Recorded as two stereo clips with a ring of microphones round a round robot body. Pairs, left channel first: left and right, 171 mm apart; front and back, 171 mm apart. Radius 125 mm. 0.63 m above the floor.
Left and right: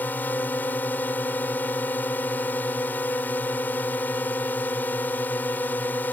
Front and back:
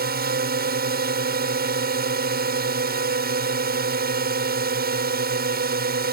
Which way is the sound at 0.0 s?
170° left.